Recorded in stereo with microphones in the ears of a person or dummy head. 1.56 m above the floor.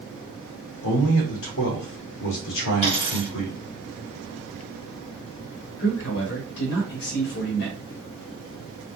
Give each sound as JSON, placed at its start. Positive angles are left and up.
{"t": 0.8, "sound": "a man speaking", "side_deg": 60, "distance_m": 1.0}
{"t": 2.8, "sound": "a dropped coin", "side_deg": 35, "distance_m": 1.8}
{"t": 5.8, "sound": "a man speaking", "side_deg": 60, "distance_m": 1.0}